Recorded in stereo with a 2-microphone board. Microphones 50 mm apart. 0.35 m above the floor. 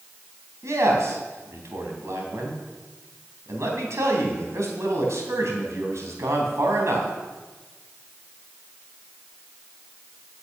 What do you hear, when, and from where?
0.6 s a man speaking: 65° right (ahead or behind), 3 m